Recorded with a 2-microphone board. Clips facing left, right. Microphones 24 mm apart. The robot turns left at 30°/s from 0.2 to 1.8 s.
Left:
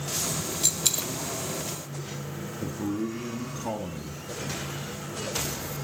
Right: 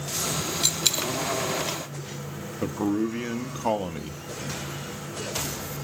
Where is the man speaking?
40° right (ahead or behind), 1.0 m.